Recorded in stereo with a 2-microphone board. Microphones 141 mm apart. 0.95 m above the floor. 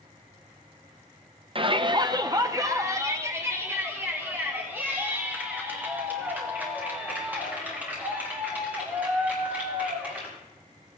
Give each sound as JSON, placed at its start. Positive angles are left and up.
{"t": 1.6, "sound": "a shout", "side_deg": -40, "distance_m": 0.5}